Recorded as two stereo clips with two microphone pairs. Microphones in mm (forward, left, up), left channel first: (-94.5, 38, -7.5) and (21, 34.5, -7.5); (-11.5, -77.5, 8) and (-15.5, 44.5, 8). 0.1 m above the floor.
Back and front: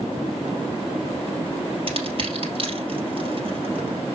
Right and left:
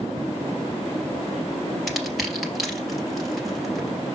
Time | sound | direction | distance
1.9 | crushing | 5° left | 2.5 m